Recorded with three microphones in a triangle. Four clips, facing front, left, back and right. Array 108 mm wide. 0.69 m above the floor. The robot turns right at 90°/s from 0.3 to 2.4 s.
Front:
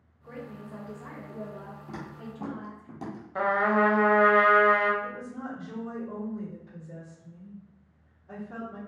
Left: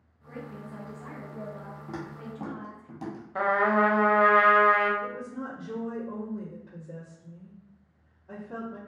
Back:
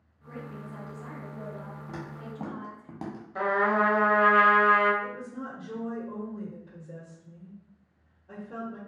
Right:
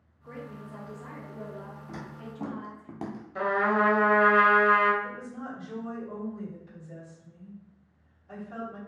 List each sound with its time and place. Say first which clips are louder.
0.2 s a woman speaking: left 1 dB, even; 50° right, 1.0 m; by 2.9 s 135° left, 1.0 m
1.9 s footsteps: left 6 dB, even; 85° left, 1.3 m; by 3.2 s 110° right, 1.0 m
3.4 s a trumpet: left 2 dB, front 1 dB; 65° left, 0.5 m
5.0 s a woman speaking: left 2 dB, even; 80° left, 1.2 m